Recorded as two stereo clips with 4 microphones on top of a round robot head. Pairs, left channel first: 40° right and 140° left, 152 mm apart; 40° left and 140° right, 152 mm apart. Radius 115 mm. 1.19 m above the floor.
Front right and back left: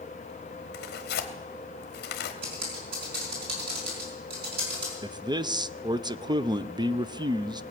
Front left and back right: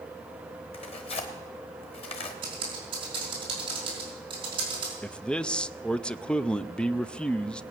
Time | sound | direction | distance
0.7 | tearing paper | 15° right | 1.1 m
2.4 | typing on a keyboard | 160° left | 4.5 m
5.0 | a man speaking | 115° left | 0.5 m